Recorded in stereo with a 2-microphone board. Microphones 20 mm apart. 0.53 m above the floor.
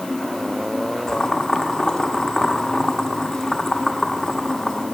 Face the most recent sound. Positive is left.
turn(degrees=20)  # may be behind; listen again after turning